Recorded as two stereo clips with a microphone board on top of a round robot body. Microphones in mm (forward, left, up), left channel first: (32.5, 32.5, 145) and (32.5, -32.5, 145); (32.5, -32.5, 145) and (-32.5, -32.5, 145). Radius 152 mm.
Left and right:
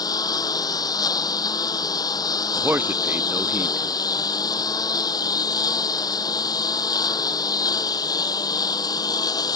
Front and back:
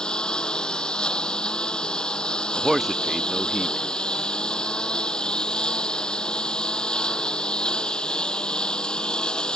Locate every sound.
0.0 s a lawn mower: 80° left
2.5 s a man speaking: 95° right